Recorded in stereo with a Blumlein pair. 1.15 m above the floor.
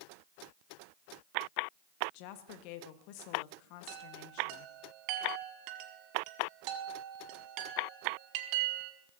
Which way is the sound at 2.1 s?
45° left.